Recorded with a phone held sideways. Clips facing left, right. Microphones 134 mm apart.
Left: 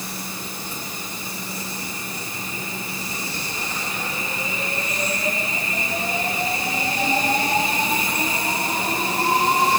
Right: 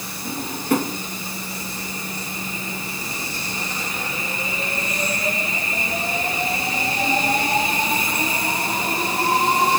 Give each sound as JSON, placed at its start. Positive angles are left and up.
{"t": 0.2, "sound": "a drawer", "side_deg": -80}